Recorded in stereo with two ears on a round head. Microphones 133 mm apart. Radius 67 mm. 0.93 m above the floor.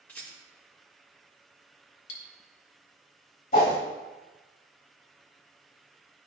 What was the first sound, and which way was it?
A rattle, 10° left (ahead or behind).